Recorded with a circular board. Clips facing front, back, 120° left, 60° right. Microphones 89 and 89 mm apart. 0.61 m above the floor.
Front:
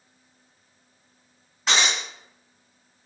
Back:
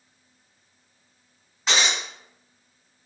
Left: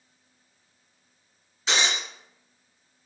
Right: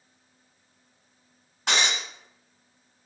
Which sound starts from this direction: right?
Breaking glass, at 1.7 s.